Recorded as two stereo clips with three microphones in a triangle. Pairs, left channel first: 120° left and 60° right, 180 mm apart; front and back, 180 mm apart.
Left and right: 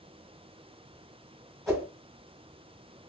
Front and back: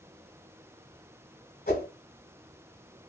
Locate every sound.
1.7 s a whoosh: 30° left, 1.6 m